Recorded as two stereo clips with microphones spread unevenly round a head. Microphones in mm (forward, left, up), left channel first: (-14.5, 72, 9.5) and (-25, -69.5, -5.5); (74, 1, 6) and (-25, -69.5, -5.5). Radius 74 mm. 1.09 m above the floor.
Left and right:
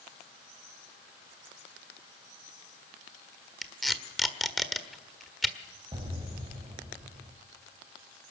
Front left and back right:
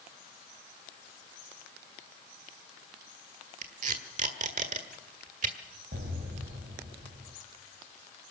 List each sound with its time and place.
3.6 s tape being pulled: 170° left, 1.5 m
5.9 s an explosion: 155° right, 3.5 m